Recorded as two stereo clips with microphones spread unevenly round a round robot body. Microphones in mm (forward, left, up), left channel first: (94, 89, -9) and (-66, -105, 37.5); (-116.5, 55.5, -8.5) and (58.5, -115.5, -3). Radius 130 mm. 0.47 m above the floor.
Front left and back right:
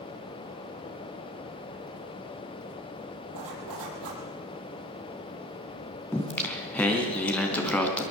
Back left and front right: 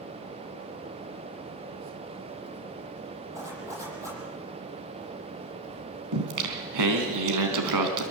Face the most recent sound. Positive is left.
turn(degrees=-30)